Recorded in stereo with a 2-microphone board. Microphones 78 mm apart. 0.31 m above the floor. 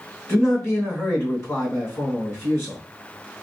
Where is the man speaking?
35° left (ahead or behind), 2 m.